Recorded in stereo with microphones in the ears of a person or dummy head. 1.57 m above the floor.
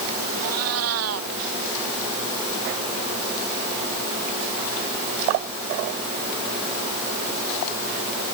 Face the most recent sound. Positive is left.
turn(degrees=-85)